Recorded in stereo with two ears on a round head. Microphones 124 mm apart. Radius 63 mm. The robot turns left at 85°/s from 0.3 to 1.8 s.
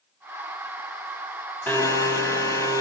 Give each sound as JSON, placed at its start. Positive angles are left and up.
{"t": 1.7, "sound": "a blender", "side_deg": 15, "distance_m": 3.5}